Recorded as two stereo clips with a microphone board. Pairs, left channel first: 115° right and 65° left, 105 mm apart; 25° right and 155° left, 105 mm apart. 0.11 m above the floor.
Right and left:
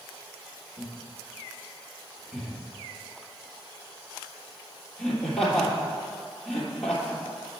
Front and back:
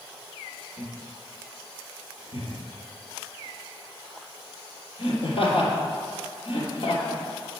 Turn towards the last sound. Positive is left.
turn(degrees=-25)